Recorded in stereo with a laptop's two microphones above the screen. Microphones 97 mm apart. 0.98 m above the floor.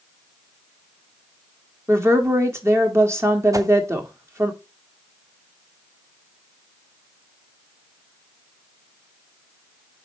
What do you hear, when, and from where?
1.9 s a woman speaking: 30° right (ahead or behind), 1.7 m
3.5 s a whoosh: 35° right (ahead or behind), 0.6 m